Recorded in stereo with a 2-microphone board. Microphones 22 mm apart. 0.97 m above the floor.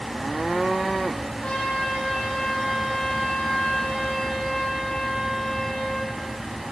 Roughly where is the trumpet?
Left.